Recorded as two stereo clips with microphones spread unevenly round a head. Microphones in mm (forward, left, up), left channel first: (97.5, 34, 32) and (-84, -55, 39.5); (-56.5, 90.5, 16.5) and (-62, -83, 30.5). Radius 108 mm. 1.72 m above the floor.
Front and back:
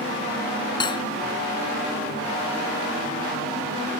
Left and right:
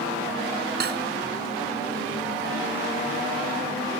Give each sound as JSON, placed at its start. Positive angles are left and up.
{"t": 0.8, "sound": "cutlery clinking", "azimuth_deg": -45}